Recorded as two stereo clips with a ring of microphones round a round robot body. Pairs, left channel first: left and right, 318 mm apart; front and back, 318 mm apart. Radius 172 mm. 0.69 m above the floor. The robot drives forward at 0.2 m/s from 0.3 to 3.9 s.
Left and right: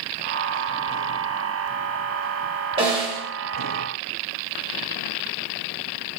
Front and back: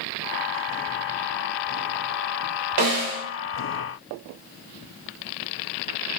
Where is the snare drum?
165° right, 0.7 m.